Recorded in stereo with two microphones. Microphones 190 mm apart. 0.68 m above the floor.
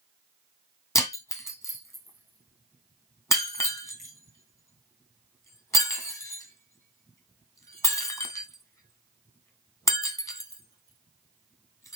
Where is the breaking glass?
15° left (ahead or behind), 2 m.